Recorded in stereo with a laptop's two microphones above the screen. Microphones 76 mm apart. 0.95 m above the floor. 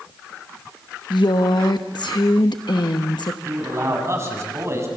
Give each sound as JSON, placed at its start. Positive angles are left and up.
{"t": 1.1, "sound": "a woman speaking", "side_deg": 70, "distance_m": 1.0}
{"t": 3.5, "sound": "a man speaking", "side_deg": -40, "distance_m": 7.5}